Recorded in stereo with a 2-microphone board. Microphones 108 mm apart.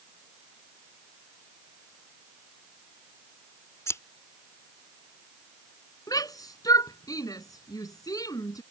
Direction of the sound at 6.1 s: 35° left (ahead or behind).